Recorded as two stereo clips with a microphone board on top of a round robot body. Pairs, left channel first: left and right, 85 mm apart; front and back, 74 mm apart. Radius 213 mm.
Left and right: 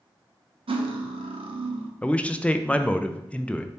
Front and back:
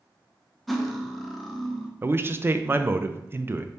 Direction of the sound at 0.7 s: 90° right.